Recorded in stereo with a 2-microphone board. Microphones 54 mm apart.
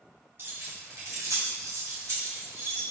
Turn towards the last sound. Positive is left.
turn(degrees=-50)  # may be behind; listen again after turning